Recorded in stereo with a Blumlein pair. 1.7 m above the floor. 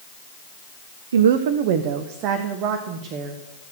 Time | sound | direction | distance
1.1 | a woman speaking | 65° right | 0.7 m